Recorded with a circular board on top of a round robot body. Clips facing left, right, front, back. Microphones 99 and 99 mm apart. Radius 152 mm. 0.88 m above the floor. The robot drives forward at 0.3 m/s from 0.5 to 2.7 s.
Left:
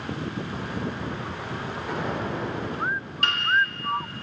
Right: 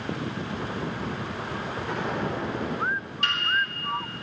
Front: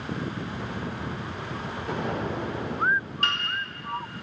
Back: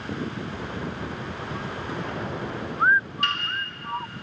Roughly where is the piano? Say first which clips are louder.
Left 2 dB, back 1 dB; ahead left.